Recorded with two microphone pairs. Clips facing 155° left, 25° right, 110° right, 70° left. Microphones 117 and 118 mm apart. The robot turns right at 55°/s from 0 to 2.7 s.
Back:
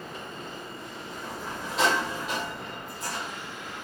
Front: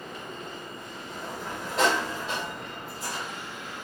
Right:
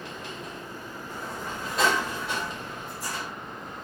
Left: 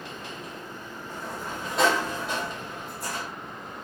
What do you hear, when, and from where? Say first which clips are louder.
1.1 s a sliding door: front 1 dB, left 1 dB; 30° right, 2.5 m; by 3.3 s 60° left, 2.5 m